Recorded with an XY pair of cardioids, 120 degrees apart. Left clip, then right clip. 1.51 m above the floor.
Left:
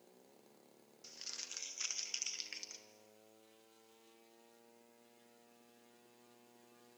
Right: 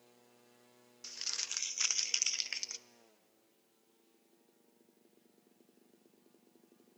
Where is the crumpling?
50° right, 0.9 m.